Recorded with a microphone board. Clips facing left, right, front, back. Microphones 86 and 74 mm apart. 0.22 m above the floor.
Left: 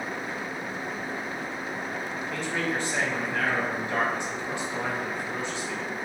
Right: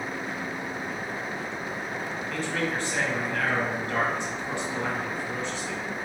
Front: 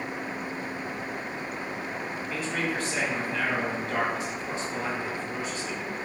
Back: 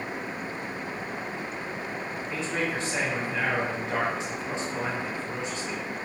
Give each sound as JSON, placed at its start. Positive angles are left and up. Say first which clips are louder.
{"t": 2.3, "sound": "a man speaking", "louder": "even, back 1 dB", "azimuth_deg": 145, "distance_m": 1.0}